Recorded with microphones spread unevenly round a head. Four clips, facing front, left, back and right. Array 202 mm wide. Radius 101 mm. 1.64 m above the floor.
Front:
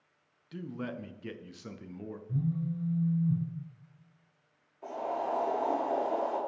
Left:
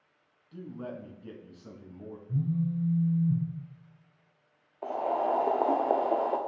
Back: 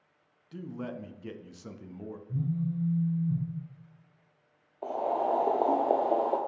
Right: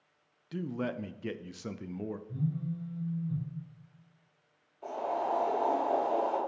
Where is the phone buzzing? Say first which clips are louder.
Left 10 dB, back 1 dB; 20° left, 2.5 m.